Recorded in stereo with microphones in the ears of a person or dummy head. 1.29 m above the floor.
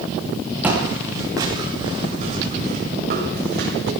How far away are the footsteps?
About 4 m.